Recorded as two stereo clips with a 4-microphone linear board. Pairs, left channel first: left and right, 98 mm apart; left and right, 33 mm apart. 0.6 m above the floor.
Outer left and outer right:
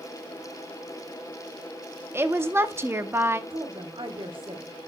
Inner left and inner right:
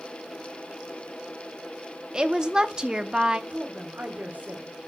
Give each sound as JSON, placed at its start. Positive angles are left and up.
{"t": 2.1, "sound": "a woman speaking", "side_deg": -25, "distance_m": 0.7}
{"t": 3.5, "sound": "a woman speaking", "side_deg": -60, "distance_m": 1.3}